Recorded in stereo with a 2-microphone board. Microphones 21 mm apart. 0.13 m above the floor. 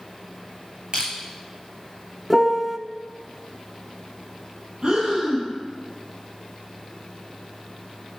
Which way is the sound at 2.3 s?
5° left (ahead or behind).